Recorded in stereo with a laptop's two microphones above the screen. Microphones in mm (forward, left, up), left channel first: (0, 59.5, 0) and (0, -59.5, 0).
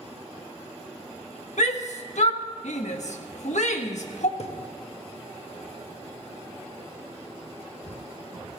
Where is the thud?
60° left (ahead or behind), 1.1 m.